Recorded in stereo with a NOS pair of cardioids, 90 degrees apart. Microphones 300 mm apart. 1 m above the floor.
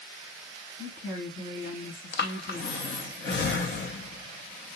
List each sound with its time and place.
0.8 s a woman speaking: 45° left, 1.8 m
2.1 s breathing: 35° left, 0.8 m